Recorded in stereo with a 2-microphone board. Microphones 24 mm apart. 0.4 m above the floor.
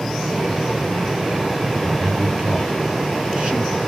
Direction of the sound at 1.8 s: 25° right (ahead or behind).